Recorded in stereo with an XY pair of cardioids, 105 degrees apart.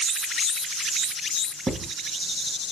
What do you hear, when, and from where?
1.7 s writing: 20° right, 1.0 m